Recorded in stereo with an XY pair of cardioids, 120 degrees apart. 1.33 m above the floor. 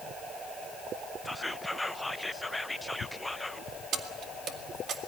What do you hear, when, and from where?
1.2 s whispering: 5° left, 0.8 m
3.9 s keys jangling: 60° right, 2 m